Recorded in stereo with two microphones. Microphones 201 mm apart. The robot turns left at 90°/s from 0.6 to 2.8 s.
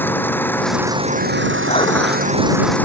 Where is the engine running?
10° left; by 2.9 s 170° left.